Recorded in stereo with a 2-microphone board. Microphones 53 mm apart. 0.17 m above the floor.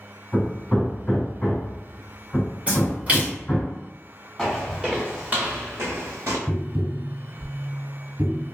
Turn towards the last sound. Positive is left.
turn(degrees=-20)  # may be behind; listen again after turning